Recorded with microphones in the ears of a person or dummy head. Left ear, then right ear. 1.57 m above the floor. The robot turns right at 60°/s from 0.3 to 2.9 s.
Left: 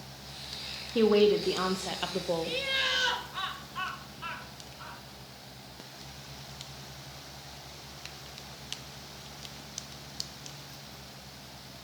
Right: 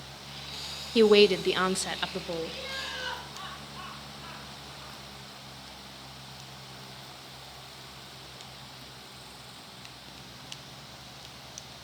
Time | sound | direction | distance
0.9 | a woman speaking | 85° right | 0.5 m
2.4 | laughter | 55° left (ahead or behind) | 3.5 m